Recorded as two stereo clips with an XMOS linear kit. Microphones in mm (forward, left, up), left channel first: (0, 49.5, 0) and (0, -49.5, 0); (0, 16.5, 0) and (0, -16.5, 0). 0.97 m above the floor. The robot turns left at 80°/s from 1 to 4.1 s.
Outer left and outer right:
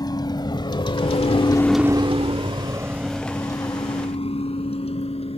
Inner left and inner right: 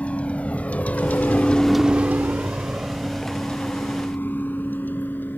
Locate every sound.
0.0 s a vehicle: 45° left (ahead or behind); by 5.4 s 85° left